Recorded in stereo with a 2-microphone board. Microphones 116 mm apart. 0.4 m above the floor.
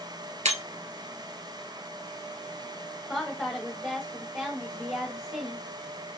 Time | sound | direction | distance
0.5 | breaking glass | 80° right | 1.2 m
3.1 | a woman speaking | 15° right (ahead or behind) | 1.8 m